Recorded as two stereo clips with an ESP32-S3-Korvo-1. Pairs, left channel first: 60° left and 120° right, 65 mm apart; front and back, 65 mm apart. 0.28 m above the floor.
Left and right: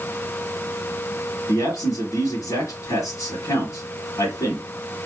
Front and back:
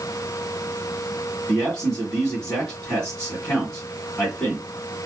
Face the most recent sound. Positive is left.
turn(degrees=80)